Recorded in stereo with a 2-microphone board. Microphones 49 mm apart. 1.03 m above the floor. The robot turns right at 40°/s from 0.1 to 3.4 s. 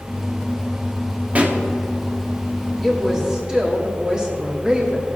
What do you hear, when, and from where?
1.4 s a pop: 25° right (ahead or behind), 0.8 m; by 1.6 s 15° right (ahead or behind), 0.8 m
2.8 s a woman speaking: 5° left (ahead or behind), 1.9 m; by 5.1 s 20° right (ahead or behind), 1.9 m